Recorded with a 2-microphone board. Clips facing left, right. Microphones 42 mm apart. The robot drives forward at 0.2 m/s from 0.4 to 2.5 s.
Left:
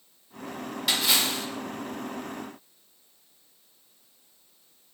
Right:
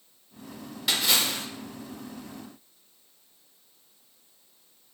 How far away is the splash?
About 1.0 m.